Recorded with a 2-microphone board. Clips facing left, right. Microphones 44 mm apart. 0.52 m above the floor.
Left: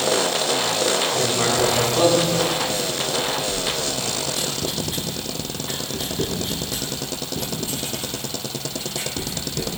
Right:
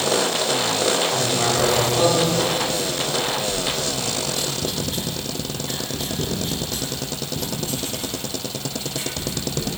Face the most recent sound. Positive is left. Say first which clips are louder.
# even
turn(degrees=10)  # may be behind; listen again after turning